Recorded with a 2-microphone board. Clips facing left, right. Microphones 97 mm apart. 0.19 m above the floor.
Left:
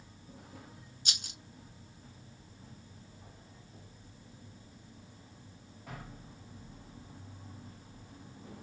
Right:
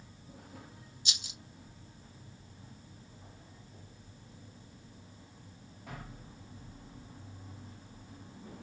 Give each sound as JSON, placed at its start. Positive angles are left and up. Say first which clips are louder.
{"t": 1.1, "sound": "a rattle", "louder": "left 1 dB", "side_deg": 50, "distance_m": 0.5}